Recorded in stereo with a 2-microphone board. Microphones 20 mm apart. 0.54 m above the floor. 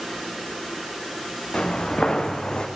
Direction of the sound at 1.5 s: 55° left (ahead or behind).